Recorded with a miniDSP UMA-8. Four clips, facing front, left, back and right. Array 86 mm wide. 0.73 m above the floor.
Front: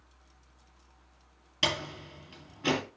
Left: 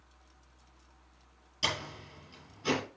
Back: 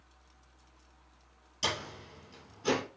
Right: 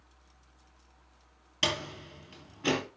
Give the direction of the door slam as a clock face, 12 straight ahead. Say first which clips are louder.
Right 3 dB, front 3 dB; 1 o'clock.